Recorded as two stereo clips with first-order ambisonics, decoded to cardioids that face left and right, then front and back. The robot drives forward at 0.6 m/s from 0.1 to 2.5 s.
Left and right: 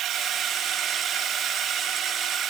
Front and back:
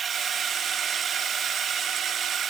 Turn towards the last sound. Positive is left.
turn(degrees=-125)